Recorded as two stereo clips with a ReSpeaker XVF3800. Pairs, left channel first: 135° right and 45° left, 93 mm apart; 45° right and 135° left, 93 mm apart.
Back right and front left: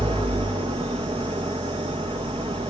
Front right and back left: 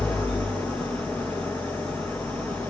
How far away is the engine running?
About 4 m.